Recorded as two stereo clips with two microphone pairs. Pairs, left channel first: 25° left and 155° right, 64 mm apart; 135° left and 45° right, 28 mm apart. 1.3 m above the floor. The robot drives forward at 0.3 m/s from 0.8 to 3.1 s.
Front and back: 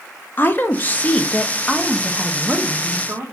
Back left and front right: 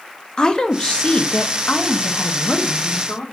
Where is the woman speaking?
85° left, 0.5 m; by 3.2 s 140° left, 0.8 m.